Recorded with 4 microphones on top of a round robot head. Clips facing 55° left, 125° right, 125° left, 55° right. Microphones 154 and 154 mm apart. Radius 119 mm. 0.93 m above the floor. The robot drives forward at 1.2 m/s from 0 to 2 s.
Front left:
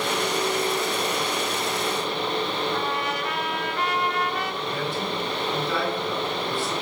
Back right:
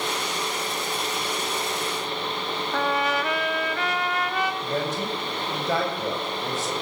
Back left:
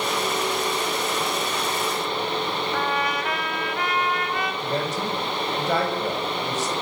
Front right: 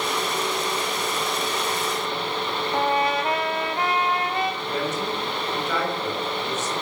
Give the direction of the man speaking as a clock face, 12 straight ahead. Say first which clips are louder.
Back right 1 dB, back left 1 dB; 6 o'clock.